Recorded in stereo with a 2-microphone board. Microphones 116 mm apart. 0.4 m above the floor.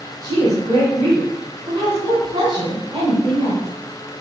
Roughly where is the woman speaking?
Right.